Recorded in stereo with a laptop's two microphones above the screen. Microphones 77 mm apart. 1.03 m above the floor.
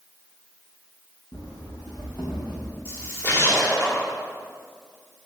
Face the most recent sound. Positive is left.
turn(degrees=40)  # may be behind; listen again after turning